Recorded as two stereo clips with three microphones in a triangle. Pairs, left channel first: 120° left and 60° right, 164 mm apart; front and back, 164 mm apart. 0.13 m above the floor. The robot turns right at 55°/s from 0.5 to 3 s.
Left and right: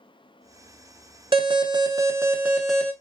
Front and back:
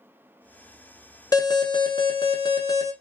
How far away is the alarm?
About 0.9 m.